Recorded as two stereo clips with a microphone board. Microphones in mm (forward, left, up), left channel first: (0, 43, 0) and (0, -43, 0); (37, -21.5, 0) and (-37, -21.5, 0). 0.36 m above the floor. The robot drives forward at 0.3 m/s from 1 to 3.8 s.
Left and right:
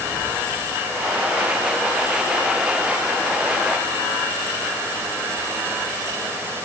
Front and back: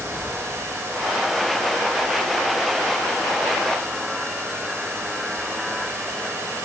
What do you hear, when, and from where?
Only background noise.